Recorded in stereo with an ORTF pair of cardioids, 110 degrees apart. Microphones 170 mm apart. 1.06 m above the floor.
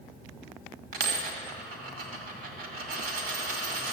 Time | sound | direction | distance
0.9 | a dropped coin | 60° right | 2 m